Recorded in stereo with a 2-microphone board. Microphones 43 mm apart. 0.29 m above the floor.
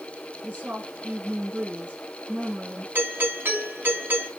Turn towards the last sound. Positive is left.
turn(degrees=-55)  # may be behind; listen again after turning